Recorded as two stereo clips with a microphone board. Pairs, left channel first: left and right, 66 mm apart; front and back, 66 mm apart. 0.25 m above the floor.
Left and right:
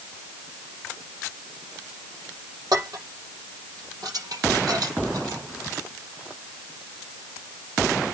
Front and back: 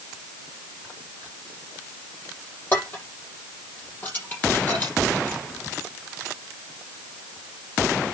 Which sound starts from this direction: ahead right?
Dishes clattering, at 2.7 s.